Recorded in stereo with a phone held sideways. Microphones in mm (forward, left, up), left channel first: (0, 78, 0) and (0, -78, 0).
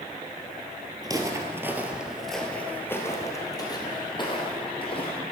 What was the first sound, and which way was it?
Footsteps, 25° right (ahead or behind).